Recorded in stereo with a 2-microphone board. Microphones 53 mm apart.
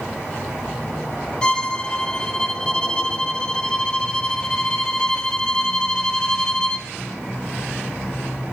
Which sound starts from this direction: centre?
A violin, at 1.4 s.